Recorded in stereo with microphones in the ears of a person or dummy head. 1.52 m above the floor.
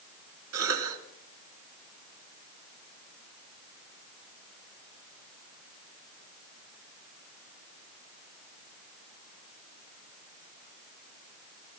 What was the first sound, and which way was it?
A cough, 75° right (ahead or behind).